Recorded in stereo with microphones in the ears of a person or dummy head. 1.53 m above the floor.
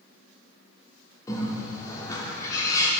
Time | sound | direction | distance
1.3 | a bird | 20° left (ahead or behind) | 1.9 m